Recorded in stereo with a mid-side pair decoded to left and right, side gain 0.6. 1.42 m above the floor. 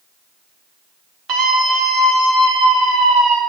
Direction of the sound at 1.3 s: 60° right.